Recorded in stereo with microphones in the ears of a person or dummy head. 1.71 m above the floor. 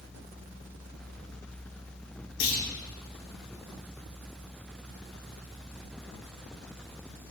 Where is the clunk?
80° left, 1.5 m.